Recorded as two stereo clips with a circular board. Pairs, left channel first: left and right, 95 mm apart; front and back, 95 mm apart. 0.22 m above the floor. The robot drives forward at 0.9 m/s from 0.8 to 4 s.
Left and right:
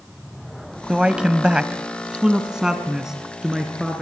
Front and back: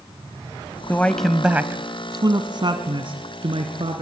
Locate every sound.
0.9 s a man speaking: 25° right, 1.0 m; by 4.0 s 175° right, 2.5 m